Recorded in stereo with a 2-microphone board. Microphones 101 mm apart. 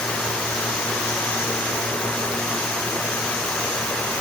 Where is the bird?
I don't hear a bird.